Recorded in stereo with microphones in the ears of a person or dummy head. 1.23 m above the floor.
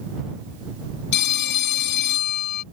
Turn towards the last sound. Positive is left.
turn(degrees=55)  # may be behind; listen again after turning